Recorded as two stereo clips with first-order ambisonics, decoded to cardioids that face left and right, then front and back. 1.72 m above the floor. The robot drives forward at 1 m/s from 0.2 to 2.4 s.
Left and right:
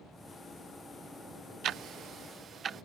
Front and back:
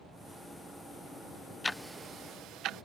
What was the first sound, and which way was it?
Ticking, 75° right.